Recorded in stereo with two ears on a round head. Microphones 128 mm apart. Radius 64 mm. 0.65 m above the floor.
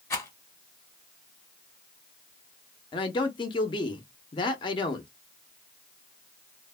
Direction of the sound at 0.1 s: 20° left (ahead or behind).